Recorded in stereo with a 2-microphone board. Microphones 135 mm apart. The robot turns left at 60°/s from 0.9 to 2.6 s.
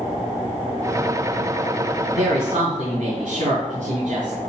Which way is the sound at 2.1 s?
60° right (ahead or behind).